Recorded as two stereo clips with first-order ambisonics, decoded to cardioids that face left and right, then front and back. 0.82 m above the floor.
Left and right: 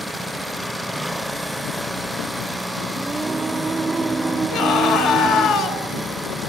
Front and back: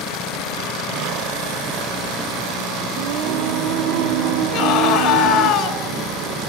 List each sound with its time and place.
3.0 s singing: 170° right, 0.6 m
4.5 s a scream: 50° left, 4 m